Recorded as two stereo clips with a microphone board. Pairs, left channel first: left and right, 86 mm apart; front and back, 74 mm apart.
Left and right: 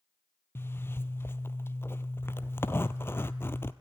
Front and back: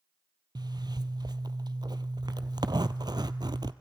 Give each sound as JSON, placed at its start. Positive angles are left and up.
{"t": 0.6, "sound": "a zipper", "azimuth_deg": 155, "distance_m": 0.8}